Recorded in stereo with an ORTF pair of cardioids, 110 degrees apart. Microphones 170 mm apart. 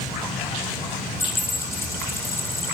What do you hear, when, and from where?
1.2 s a dropped coin: 15° left, 5.5 m